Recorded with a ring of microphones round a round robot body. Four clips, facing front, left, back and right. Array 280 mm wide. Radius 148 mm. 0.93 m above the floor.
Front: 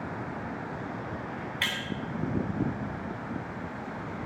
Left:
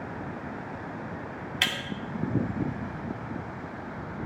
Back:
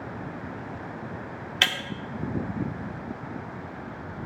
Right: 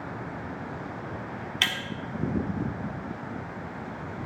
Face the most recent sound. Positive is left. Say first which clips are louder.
# even, back 7 dB
turn(degrees=-175)